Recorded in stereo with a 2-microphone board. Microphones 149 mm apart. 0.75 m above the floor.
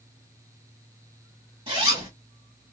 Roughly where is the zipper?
Right.